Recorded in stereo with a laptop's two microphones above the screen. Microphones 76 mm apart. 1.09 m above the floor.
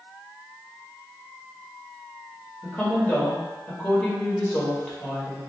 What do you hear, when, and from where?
2.6 s a woman speaking: 20° left (ahead or behind), 2 m